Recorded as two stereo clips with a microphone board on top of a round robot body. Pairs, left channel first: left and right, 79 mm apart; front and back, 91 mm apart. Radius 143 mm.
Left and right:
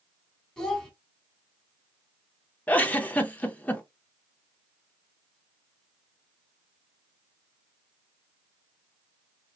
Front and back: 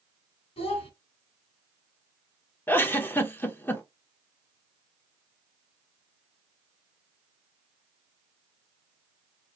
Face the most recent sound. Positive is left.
turn(degrees=40)